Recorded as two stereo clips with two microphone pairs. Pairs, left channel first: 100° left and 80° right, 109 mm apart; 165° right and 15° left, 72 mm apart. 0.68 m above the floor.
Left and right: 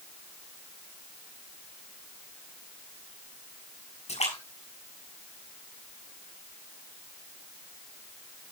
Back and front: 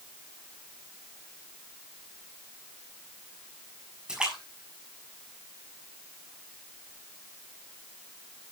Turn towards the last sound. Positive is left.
turn(degrees=90)